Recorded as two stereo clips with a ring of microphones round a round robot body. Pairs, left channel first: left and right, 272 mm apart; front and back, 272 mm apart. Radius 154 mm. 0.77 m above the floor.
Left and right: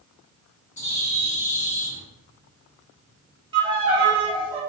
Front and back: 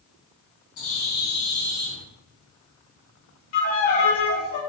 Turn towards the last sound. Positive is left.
turn(degrees=-20)